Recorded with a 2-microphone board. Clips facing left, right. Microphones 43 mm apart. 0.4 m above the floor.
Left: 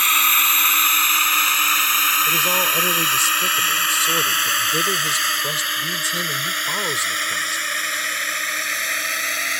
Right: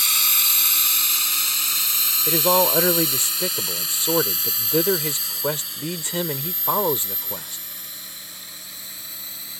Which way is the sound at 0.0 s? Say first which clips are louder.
Left 8 dB; 40° left (ahead or behind).